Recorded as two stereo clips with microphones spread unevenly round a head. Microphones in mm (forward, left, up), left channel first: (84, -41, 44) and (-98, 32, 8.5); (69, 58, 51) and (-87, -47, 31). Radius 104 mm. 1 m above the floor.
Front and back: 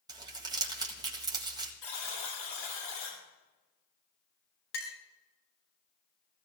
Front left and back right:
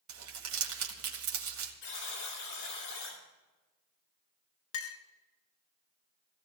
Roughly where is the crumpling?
Behind right.